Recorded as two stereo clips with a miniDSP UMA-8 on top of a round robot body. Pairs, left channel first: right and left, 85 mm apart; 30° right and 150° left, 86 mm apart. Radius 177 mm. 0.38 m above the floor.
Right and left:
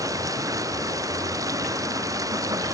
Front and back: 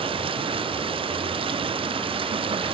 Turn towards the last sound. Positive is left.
turn(degrees=140)